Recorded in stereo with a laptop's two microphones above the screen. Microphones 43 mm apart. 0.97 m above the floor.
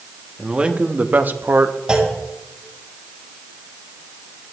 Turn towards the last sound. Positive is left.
turn(degrees=-20)  # may be behind; listen again after turning